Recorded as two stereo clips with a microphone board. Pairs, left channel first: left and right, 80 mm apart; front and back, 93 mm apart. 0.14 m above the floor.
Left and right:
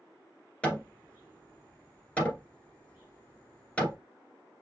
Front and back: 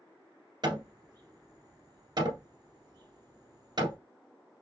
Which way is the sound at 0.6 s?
160° left.